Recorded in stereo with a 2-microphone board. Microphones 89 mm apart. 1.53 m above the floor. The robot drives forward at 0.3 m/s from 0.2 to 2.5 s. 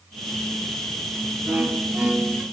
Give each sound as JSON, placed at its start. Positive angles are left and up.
{"t": 1.5, "sound": "a violin", "side_deg": -20, "distance_m": 0.6}